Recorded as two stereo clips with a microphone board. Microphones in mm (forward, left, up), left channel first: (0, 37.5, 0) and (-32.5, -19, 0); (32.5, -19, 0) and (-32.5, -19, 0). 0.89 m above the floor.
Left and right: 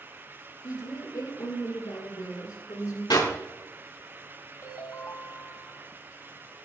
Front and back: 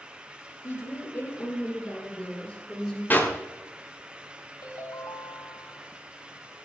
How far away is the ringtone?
About 4.5 m.